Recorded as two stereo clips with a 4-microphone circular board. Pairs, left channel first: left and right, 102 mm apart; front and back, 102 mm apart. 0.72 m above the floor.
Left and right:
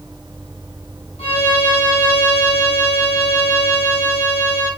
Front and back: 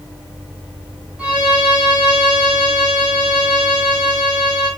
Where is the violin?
100° left, 4 m.